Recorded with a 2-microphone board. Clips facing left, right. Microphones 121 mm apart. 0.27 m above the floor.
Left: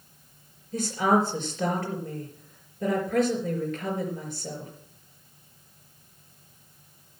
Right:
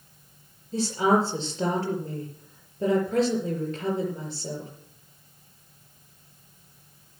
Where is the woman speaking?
30° right (ahead or behind), 4.5 m.